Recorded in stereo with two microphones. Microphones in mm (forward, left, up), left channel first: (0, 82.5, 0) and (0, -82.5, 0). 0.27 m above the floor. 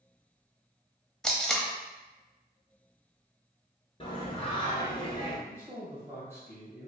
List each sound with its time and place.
1.2 s tape being pulled: 5° left (ahead or behind), 0.6 m
4.0 s singing: 35° left (ahead or behind), 1.2 m
5.5 s a man speaking: 15° right (ahead or behind), 1.7 m